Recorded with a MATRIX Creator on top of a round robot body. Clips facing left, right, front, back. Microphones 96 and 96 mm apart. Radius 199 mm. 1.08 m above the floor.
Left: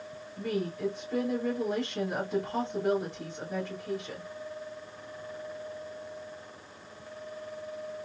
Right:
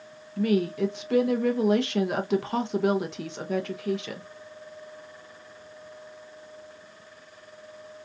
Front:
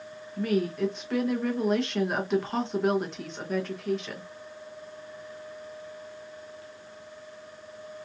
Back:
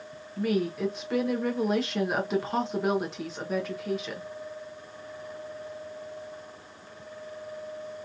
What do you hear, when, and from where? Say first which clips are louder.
0.4 s a woman speaking: right 8 dB, front 1 dB; 90° right, 0.7 m